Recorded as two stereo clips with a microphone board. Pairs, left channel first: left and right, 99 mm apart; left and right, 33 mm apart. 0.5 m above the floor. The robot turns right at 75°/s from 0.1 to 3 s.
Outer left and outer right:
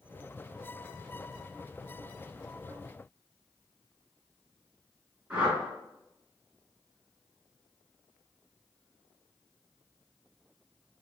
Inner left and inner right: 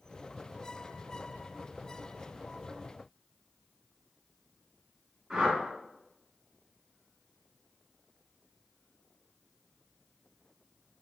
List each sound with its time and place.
5.3 s a whoosh: 10° right (ahead or behind), 1.9 m